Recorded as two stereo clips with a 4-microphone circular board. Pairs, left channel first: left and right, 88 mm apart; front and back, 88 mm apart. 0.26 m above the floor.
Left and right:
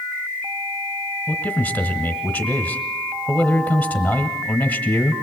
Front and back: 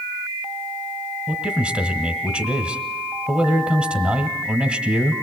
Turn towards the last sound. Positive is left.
turn(degrees=120)